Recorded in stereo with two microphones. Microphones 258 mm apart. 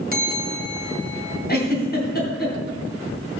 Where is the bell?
35° right (ahead or behind), 1.4 m.